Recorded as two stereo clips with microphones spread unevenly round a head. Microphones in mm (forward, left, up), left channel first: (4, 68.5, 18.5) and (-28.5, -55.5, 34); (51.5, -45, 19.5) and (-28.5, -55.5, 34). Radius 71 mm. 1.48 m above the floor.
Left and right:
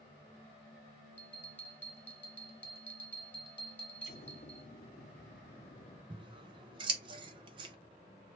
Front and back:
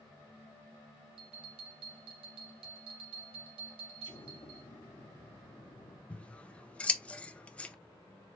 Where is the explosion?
50° left, 1.1 m.